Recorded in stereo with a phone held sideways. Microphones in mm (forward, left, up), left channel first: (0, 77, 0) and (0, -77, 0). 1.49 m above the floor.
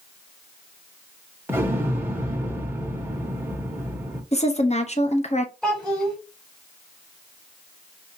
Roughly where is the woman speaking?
Left.